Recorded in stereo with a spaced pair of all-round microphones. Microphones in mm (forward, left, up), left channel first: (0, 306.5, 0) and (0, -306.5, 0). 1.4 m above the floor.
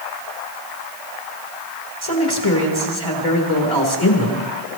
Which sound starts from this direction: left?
A man speaking, at 2.0 s.